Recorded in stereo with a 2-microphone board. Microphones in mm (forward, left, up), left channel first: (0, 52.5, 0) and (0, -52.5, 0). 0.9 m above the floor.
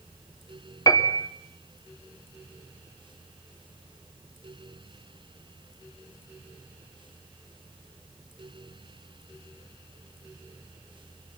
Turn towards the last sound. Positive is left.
turn(degrees=35)  # may be behind; listen again after turning